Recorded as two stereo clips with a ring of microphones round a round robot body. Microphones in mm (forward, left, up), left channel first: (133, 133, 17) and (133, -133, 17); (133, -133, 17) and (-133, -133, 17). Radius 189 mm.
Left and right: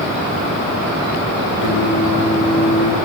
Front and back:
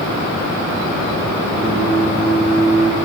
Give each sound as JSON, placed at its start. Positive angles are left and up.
{"t": 1.6, "sound": "singing", "azimuth_deg": 110, "distance_m": 7.5}